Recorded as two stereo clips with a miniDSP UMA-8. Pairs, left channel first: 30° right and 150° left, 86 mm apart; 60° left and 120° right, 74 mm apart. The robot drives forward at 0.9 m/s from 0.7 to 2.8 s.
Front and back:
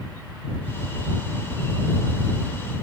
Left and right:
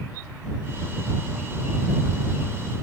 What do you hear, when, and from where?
Only background noise.